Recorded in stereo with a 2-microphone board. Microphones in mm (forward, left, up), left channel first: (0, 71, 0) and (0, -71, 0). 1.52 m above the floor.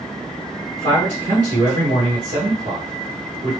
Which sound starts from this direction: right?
A man speaking, at 0.8 s.